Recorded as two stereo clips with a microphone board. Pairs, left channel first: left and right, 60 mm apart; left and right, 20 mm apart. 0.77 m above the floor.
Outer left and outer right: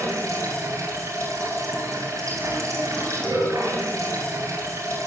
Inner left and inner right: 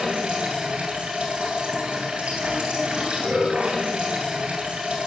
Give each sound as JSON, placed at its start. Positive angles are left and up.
{"t": 0.0, "sound": "running water", "side_deg": -65, "distance_m": 8.5}